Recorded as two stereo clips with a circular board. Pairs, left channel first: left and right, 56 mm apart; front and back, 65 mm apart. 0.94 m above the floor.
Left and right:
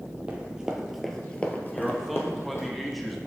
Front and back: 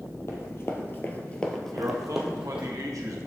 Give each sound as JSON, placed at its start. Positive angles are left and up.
{"t": 0.3, "sound": "running footsteps", "azimuth_deg": -30, "distance_m": 1.4}
{"t": 1.7, "sound": "a man speaking", "azimuth_deg": 180, "distance_m": 1.2}